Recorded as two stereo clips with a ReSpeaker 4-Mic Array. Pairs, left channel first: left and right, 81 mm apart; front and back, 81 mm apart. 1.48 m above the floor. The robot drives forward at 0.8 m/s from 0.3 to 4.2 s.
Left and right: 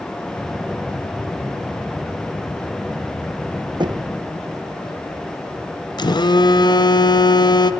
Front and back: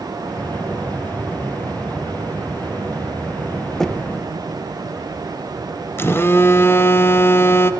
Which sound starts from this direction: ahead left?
A phone buzzing, at 6.0 s.